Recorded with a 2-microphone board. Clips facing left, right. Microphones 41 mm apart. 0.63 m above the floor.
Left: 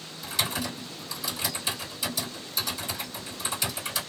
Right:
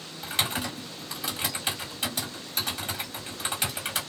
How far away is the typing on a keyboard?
About 1.8 m.